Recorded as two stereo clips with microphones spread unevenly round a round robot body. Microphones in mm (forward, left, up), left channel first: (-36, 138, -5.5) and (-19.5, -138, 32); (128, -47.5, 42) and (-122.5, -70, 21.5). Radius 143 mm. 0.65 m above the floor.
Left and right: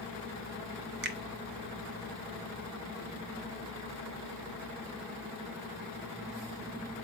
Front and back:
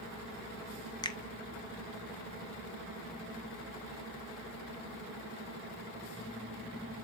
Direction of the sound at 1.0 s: 60° right.